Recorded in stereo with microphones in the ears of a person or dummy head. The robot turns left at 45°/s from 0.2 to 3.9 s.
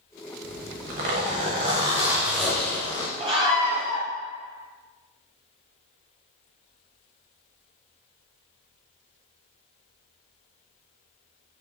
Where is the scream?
150° right, 0.9 m; by 4.1 s straight behind, 0.9 m.